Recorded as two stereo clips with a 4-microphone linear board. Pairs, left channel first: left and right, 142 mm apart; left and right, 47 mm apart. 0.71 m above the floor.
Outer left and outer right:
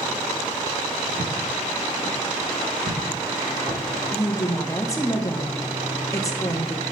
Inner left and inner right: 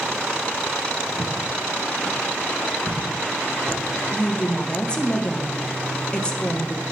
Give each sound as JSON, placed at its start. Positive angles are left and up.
{"t": 1.2, "sound": "footsteps", "side_deg": -80, "distance_m": 4.5}
{"t": 4.1, "sound": "a woman speaking", "side_deg": 20, "distance_m": 1.3}